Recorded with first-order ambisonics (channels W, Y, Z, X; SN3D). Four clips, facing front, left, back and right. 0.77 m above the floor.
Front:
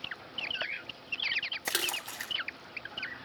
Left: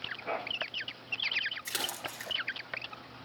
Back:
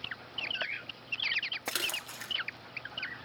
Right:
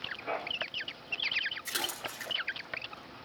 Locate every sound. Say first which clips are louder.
1.6 s a splash: even, front 2 dB; 10° left, 5.5 m